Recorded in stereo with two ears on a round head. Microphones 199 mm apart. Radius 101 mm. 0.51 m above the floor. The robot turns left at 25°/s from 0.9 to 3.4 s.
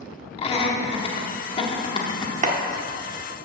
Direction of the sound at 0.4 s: 25° left (ahead or behind).